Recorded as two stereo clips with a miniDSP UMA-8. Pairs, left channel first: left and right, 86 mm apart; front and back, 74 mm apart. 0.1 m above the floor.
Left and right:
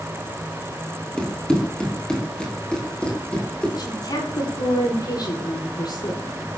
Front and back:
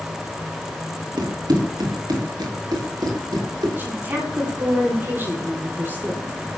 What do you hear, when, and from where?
1.2 s running footsteps: 170° left, 4.5 m
3.8 s a woman speaking: 120° left, 9 m